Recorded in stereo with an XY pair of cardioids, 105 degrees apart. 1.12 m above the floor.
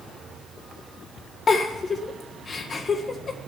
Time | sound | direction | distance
1.5 | a giggle | 40° left | 1.7 m